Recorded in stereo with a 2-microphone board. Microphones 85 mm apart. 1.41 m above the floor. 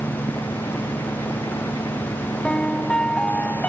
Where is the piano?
10° left (ahead or behind).